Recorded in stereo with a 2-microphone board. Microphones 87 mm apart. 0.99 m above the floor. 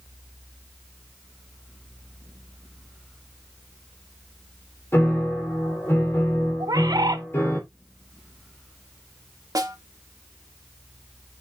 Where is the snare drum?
45° right (ahead or behind), 1.4 m.